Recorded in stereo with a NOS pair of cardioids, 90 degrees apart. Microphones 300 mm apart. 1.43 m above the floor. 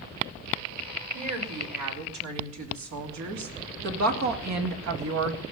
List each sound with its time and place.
1.1 s a woman speaking: 65° right, 4.5 m; by 5.4 s 50° right, 1.6 m